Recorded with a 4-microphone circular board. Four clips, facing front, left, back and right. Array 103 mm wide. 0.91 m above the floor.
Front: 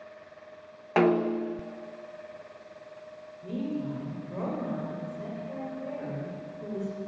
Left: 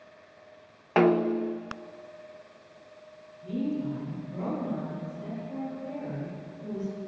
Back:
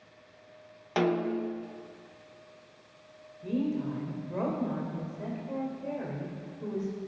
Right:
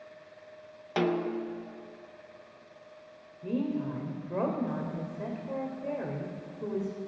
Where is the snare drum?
55° left, 0.5 m.